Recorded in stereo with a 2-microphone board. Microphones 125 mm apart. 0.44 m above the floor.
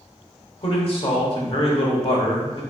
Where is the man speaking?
50° left (ahead or behind), 1.1 m.